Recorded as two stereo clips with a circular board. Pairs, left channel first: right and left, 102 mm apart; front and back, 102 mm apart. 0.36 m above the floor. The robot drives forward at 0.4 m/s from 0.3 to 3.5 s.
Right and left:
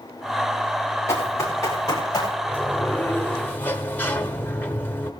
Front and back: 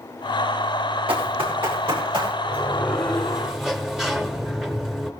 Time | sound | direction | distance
1.1 | running footsteps | 150° right | 7.5 m
2.4 | a sliding door | 50° right | 1.4 m